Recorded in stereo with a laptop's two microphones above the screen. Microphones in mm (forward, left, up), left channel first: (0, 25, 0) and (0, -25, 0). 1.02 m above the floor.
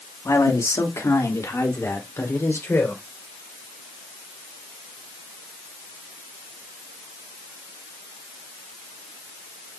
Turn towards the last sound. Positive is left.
turn(degrees=55)  # may be behind; listen again after turning